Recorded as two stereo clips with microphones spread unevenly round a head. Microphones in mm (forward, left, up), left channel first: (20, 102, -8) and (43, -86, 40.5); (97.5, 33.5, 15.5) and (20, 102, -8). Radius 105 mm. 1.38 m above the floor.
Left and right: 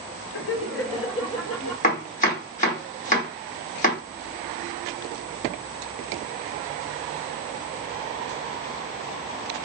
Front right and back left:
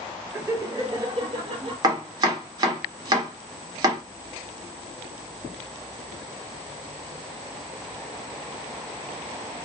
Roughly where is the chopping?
Behind left.